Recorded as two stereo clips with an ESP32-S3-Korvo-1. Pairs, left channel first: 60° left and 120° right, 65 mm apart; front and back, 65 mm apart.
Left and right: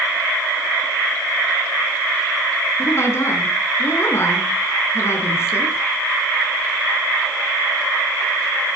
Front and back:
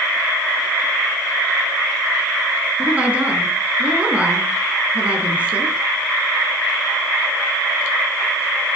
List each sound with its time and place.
2.8 s a woman speaking: 110° left, 4.5 m